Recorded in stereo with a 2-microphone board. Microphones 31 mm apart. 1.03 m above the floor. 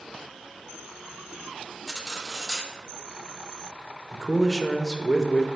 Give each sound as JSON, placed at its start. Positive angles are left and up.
{"t": 1.9, "sound": "cutlery clinking", "side_deg": -5, "distance_m": 0.7}
{"t": 4.1, "sound": "a man speaking", "side_deg": 15, "distance_m": 0.7}